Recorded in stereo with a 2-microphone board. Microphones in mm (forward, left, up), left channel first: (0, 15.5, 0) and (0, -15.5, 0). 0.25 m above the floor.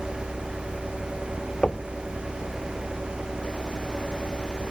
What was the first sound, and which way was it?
Knocking, 15° left (ahead or behind).